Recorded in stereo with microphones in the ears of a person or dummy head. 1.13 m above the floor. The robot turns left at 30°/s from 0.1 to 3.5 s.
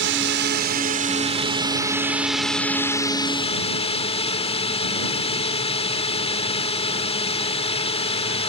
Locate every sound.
0.0 s a drone: 110° right; by 8.5 s 150° left